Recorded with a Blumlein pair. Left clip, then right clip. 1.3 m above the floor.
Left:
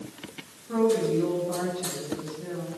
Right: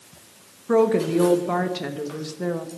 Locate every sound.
0.7 s a woman speaking: 55° right, 1.2 m